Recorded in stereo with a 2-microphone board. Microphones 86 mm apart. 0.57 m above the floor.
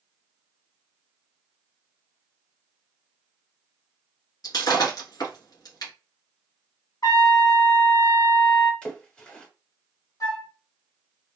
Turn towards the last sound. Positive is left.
turn(degrees=50)  # may be behind; listen again after turning